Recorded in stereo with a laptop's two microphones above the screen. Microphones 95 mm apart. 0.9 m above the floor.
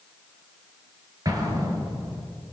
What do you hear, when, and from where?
1.2 s an explosion: 40° right (ahead or behind), 4.5 m